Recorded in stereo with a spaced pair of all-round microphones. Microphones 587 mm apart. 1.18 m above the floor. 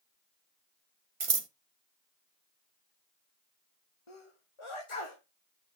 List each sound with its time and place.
1.2 s scissors: 60° right (ahead or behind), 0.9 m
4.1 s a sneeze: 55° left (ahead or behind), 1.4 m